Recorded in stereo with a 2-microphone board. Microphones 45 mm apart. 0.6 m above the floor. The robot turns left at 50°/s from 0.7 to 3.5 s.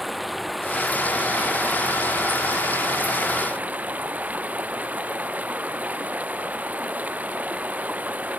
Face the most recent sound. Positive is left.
turn(degrees=-140)